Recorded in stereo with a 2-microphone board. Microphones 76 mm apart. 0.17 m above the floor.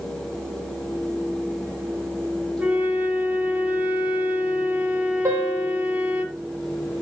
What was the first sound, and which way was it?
A flute, 20° right (ahead or behind).